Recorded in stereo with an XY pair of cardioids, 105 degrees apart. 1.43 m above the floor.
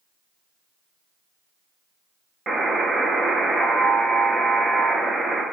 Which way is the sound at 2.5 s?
30° right.